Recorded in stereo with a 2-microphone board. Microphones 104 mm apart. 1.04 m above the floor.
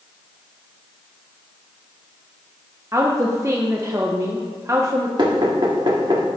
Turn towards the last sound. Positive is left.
turn(degrees=-45)  # may be behind; listen again after turning